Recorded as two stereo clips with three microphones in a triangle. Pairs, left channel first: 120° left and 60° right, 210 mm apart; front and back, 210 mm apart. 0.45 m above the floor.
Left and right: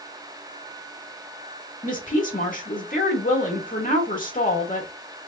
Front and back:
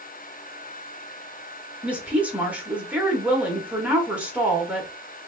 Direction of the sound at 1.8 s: 100° left.